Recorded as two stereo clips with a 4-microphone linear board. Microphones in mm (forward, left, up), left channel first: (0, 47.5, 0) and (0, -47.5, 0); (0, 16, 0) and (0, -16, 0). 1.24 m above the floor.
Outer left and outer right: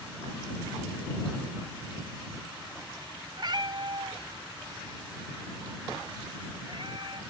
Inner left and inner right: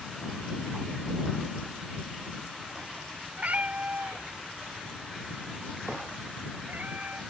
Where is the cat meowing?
55° right (ahead or behind); by 7.2 s 65° right (ahead or behind).